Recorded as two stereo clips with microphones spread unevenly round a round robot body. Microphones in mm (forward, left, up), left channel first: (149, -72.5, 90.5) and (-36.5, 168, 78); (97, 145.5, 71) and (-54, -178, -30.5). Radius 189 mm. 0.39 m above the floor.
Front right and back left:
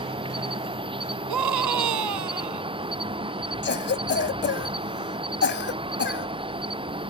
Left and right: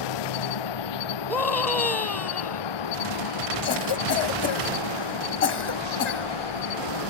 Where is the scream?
155° left.